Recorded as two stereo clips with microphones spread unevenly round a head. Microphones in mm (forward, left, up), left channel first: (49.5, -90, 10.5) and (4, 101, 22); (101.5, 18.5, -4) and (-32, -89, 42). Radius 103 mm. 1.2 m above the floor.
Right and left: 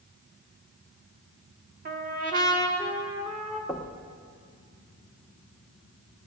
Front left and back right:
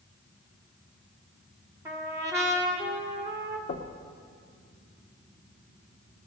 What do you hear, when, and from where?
1.9 s a trumpet: 150° left, 1.2 m
3.7 s knocking: 10° left, 1.1 m